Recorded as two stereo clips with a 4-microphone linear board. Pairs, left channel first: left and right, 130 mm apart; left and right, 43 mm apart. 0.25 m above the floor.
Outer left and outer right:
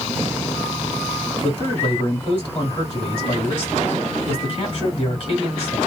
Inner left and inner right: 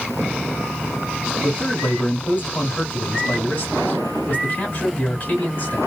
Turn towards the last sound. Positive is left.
turn(degrees=40)  # may be behind; listen again after turning